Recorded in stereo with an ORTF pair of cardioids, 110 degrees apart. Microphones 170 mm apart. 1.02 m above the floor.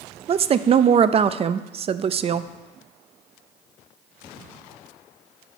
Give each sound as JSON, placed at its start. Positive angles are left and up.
{"t": 0.3, "sound": "a woman speaking", "azimuth_deg": -40, "distance_m": 0.5}